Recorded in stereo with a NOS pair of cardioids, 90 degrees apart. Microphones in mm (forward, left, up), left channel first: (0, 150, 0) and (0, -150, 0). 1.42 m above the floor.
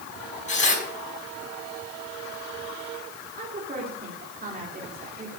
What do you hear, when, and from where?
0.5 s tearing paper: 25° left, 5 m
3.3 s a woman speaking: 30° right, 3 m